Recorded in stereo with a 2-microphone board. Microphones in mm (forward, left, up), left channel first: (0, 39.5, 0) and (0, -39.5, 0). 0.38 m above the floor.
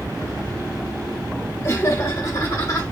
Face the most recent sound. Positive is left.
turn(degrees=45)  # may be behind; listen again after turning